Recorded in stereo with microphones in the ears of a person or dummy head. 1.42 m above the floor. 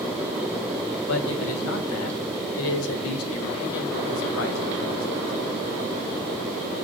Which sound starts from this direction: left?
A man speaking, at 1.1 s.